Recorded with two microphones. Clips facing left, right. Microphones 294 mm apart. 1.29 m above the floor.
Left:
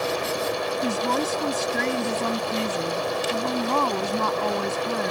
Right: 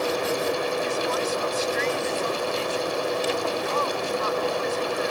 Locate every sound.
0.8 s a woman speaking: 60° left (ahead or behind)